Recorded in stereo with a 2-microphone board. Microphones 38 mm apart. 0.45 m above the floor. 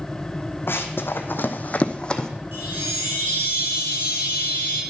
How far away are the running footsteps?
About 1.2 m.